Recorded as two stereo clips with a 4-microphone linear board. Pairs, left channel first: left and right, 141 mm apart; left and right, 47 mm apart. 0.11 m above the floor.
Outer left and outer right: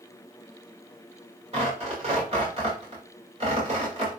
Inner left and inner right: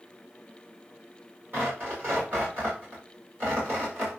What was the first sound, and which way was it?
Tearing paper, 45° right (ahead or behind).